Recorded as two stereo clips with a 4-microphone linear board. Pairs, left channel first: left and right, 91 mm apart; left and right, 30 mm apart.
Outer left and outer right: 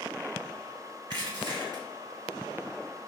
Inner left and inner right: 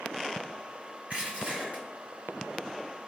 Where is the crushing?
50° right (ahead or behind), 1.8 m.